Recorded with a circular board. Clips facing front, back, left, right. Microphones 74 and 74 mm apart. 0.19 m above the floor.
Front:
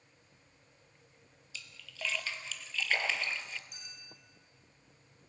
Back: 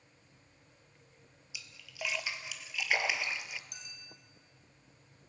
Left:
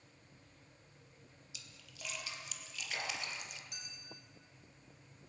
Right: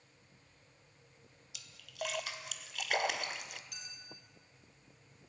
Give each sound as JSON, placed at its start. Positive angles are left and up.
{"t": 1.5, "sound": "a splash", "azimuth_deg": -105, "distance_m": 0.5}
{"t": 3.7, "sound": "a clink", "azimuth_deg": 155, "distance_m": 4.0}